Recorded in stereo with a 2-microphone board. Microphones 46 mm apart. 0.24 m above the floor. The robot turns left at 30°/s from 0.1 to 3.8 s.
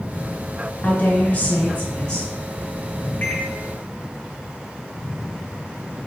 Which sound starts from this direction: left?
A microwave, at 3.2 s.